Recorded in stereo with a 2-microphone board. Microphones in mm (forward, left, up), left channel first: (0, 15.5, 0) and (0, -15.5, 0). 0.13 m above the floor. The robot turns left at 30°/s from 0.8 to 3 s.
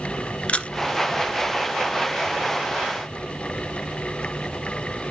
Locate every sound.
0.5 s a camera shutter: 35° left (ahead or behind), 1.0 m